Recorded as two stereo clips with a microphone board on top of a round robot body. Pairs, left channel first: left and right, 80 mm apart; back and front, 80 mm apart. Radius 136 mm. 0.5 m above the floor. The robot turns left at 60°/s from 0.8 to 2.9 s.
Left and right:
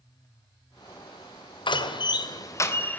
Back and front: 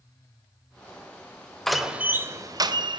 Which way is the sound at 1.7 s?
95° left.